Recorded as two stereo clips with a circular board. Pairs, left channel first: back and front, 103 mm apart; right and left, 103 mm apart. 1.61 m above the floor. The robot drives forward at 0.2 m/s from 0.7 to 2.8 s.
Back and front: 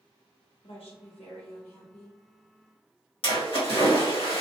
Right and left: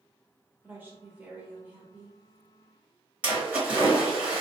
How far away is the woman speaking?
About 0.9 m.